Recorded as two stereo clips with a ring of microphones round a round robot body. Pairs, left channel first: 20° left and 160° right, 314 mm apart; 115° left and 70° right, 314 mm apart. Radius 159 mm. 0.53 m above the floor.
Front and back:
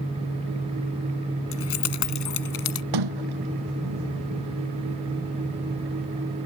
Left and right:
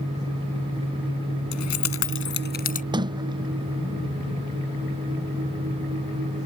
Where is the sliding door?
145° right.